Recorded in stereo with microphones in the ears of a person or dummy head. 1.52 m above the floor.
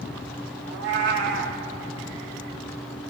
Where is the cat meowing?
40° right (ahead or behind), 0.9 m.